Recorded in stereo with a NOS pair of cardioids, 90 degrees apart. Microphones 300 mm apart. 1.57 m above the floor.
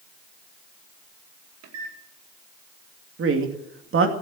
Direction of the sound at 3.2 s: 45° right.